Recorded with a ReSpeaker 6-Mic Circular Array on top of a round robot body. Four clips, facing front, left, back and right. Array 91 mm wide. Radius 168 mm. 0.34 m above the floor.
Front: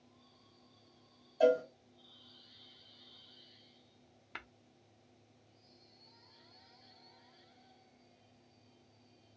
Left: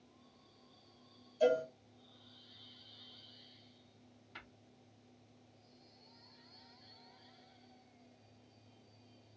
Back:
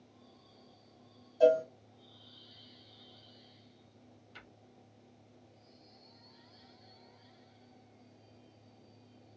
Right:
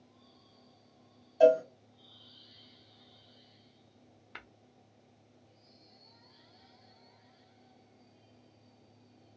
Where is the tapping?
35° right, 0.7 m.